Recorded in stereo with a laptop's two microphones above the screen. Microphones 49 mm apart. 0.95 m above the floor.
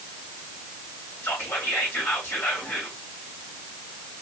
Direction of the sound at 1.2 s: 60° left (ahead or behind).